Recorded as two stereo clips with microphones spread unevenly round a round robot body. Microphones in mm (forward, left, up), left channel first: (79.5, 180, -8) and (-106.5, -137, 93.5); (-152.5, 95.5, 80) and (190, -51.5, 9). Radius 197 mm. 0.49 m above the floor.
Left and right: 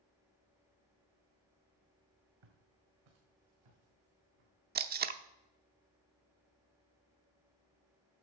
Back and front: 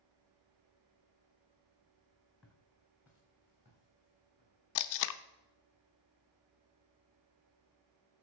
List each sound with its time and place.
2.4 s footsteps: 120° right, 2.5 m; by 4.5 s 100° right, 4.5 m
4.8 s tape being pulled: 165° left, 0.7 m